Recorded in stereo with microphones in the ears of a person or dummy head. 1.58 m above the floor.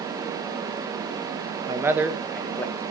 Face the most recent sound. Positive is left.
turn(degrees=15)  # may be behind; listen again after turning